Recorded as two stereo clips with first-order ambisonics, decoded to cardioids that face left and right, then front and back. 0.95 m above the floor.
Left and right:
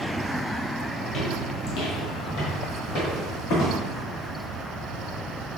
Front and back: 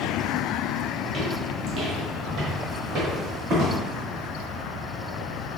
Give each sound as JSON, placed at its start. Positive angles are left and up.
{"t": 1.0, "sound": "footsteps", "azimuth_deg": 125, "distance_m": 1.1}